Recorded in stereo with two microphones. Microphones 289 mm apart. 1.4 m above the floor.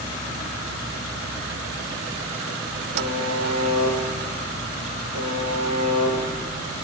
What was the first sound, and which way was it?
A buzzer, 60° right (ahead or behind).